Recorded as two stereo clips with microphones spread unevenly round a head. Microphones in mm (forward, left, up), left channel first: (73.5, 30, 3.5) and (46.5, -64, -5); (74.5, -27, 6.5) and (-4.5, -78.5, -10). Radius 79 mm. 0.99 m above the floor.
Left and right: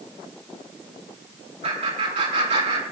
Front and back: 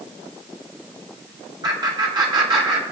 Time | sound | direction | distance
1.6 | laughter | 110° right | 9.5 m